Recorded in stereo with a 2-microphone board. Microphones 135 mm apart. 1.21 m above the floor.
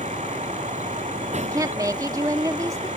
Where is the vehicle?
60° right (ahead or behind).